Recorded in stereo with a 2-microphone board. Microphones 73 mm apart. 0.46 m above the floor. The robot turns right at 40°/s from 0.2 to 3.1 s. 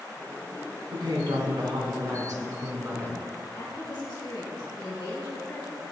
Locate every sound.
0.9 s a woman speaking: 115° right, 3.5 m; by 3.2 s 25° right, 3.5 m
3.5 s a woman speaking: 75° left (ahead or behind), 5 m